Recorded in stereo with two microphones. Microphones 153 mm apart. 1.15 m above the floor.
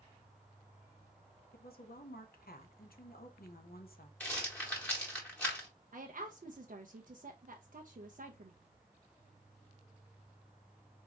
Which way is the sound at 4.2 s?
10° left (ahead or behind).